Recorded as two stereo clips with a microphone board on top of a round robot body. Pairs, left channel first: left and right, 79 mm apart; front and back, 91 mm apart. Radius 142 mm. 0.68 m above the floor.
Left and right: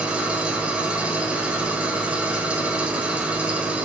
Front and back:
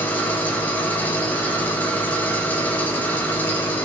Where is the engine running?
35° right, 0.8 m.